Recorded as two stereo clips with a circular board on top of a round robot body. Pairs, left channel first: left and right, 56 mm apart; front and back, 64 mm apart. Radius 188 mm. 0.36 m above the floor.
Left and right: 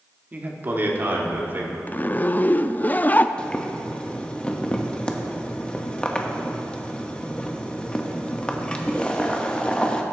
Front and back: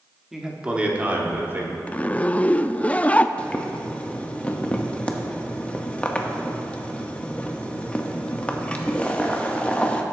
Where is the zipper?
55° left, 0.5 m.